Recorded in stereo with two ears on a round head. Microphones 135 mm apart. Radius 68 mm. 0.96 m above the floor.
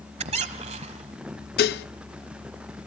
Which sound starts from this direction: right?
A squeak, at 0.2 s.